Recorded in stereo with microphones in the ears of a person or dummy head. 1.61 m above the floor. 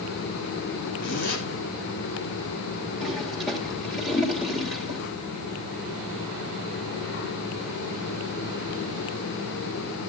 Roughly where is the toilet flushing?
Centre.